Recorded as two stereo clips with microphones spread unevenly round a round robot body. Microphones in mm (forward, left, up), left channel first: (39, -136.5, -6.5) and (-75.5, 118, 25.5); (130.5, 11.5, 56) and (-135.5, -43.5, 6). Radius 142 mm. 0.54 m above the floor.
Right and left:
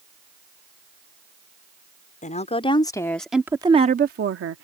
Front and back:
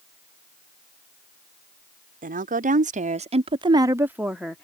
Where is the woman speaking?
120° right; by 4.6 s 110° left.